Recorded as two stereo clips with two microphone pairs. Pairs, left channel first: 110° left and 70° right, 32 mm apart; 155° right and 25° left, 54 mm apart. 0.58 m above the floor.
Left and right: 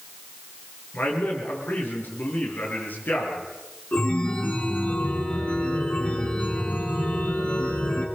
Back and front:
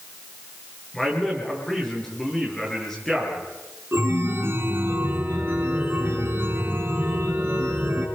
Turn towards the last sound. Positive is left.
turn(degrees=70)